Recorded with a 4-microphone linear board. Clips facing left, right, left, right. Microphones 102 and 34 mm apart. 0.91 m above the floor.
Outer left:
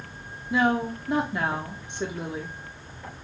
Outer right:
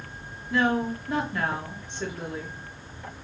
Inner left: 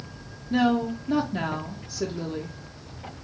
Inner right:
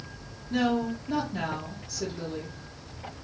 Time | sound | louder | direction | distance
0.5 | a woman speaking | outer left 1 dB, inner left 4 dB | 20° left (ahead or behind) | 0.6 m